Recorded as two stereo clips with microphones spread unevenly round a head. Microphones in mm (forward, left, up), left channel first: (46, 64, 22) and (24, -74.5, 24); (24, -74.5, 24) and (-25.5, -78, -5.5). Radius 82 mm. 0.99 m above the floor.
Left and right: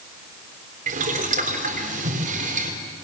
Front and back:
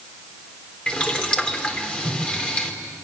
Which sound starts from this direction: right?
Boiling, at 0.9 s.